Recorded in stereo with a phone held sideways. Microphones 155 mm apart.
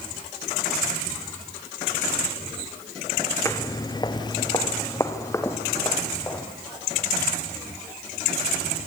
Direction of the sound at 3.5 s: 20° left (ahead or behind).